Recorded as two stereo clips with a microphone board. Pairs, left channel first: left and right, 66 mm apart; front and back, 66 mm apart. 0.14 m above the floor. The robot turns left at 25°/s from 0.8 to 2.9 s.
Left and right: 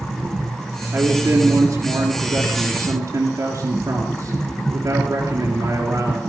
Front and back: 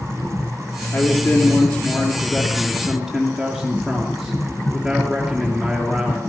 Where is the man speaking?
35° right, 2.5 m; by 6.2 s 85° right, 2.5 m.